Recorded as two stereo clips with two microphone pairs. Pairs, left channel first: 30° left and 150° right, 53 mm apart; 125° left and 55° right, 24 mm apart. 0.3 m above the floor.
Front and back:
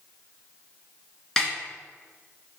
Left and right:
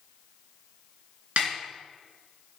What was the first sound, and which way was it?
A snare drum, 55° right.